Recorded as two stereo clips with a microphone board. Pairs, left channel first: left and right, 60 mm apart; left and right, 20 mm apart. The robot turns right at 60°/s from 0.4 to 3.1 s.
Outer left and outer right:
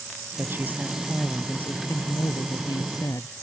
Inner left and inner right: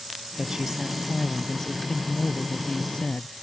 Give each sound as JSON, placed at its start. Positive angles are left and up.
{"t": 0.4, "sound": "a woman speaking", "azimuth_deg": -45}